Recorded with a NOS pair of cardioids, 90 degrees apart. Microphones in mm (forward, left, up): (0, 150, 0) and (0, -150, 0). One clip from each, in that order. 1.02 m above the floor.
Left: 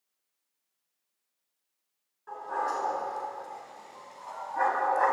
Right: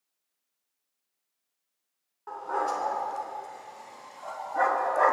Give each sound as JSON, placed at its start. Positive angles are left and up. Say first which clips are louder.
{"t": 2.3, "sound": "a dog barking", "louder": "right 2 dB", "azimuth_deg": -55, "distance_m": 4.5}